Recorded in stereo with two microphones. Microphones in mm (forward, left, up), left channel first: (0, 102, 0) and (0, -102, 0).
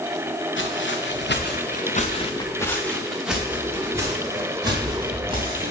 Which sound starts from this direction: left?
Footsteps, at 0.6 s.